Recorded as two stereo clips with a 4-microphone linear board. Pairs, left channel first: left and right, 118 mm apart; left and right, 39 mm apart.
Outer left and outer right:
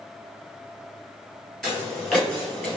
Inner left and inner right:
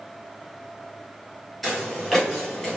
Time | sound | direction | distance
1.6 | footsteps | 5° left (ahead or behind) | 1.9 m